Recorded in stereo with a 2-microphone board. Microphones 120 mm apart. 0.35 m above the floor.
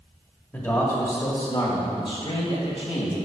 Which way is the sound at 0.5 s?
20° left (ahead or behind).